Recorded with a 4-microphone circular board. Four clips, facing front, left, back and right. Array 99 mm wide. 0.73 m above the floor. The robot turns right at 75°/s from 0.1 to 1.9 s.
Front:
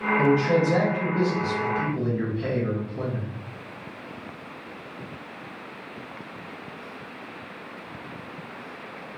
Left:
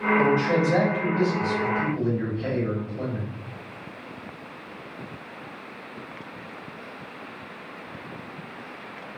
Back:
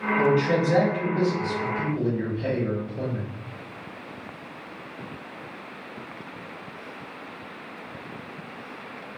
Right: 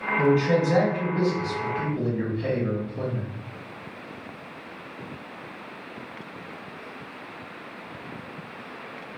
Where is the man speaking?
155° right, 1.3 m; by 3.2 s 25° right, 1.3 m.